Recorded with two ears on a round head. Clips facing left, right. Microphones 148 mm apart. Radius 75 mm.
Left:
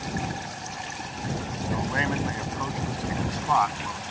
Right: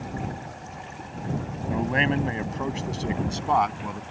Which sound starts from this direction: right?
A man speaking, at 1.7 s.